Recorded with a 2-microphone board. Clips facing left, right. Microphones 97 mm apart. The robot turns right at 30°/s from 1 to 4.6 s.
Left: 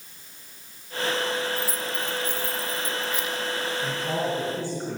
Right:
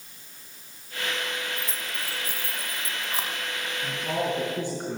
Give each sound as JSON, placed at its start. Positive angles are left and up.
{"t": 1.6, "sound": "keys jangling", "side_deg": 10, "distance_m": 2.0}
{"t": 3.8, "sound": "a man speaking", "side_deg": 5, "distance_m": 4.5}